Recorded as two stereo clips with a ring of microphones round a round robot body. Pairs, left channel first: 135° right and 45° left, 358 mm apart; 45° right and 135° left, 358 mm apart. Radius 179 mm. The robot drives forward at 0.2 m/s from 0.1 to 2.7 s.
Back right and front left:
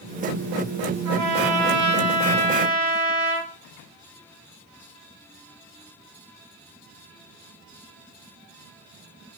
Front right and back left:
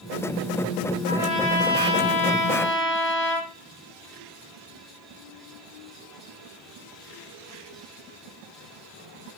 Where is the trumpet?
30° left, 1.4 m; by 3.5 s 40° left, 1.1 m.